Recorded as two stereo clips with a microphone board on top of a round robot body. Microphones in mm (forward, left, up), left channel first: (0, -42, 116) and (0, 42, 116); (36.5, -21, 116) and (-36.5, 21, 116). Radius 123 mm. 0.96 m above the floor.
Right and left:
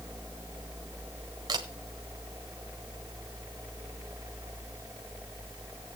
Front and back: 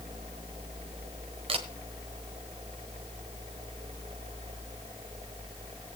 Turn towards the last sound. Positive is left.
turn(degrees=135)